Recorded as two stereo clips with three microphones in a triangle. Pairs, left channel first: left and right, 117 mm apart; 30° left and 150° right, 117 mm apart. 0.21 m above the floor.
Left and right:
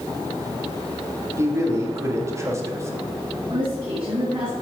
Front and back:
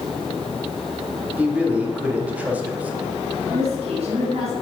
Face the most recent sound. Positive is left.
turn(degrees=-150)